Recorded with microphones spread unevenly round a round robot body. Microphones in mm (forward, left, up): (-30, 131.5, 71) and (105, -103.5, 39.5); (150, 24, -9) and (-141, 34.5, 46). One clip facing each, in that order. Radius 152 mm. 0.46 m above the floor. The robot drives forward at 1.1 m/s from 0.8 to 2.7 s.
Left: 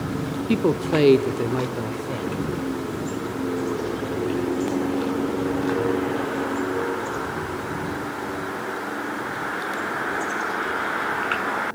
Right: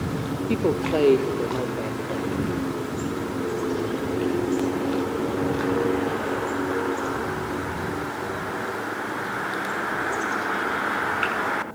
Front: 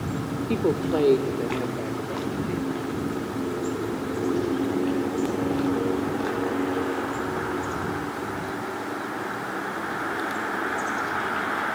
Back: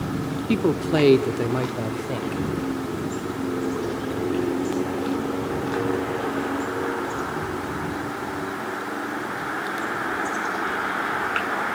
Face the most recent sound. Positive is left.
turn(degrees=175)